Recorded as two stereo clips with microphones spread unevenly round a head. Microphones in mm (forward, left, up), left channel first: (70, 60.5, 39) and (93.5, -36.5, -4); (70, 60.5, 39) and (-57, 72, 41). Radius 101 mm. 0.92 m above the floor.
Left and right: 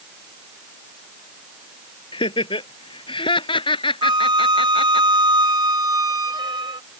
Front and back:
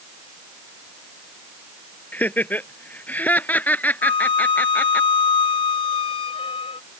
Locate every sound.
2.1 s laughter: 70° left
4.0 s a flute: 55° right